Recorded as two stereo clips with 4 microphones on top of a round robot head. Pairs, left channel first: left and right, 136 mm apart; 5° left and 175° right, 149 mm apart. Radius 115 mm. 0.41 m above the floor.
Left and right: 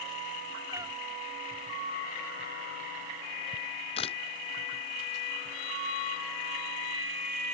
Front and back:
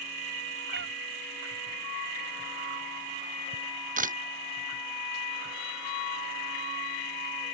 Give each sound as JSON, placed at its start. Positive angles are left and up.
{"t": 0.7, "sound": "a cat meowing", "azimuth_deg": -165}
{"t": 3.5, "sound": "a camera shutter", "azimuth_deg": 150}